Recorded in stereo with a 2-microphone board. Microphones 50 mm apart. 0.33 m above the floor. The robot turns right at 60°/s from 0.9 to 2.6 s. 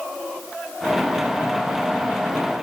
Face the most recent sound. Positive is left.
No sound to turn to.